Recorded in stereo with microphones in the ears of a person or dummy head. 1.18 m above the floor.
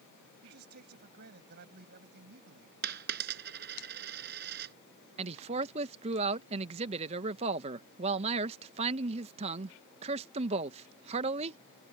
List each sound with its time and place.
0.4 s a man speaking: 55° right (ahead or behind)
2.8 s a dropped coin: 60° right (ahead or behind)
5.2 s a man speaking: 30° right (ahead or behind)